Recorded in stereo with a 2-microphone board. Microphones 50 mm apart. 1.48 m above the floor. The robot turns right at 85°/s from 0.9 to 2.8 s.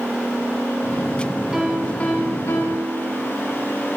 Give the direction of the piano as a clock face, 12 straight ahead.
12 o'clock.